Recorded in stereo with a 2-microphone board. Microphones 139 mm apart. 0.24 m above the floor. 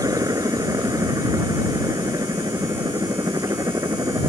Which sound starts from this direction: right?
A helicopter, at 0.0 s.